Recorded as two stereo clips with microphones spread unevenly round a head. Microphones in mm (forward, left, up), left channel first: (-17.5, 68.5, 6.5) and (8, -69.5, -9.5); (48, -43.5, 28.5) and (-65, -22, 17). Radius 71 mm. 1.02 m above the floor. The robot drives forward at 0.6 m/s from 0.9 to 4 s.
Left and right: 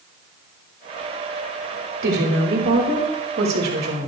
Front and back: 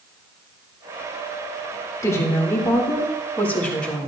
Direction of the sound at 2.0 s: 75° right.